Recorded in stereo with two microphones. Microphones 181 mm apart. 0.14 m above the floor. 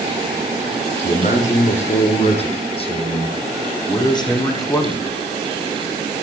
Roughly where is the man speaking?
Left.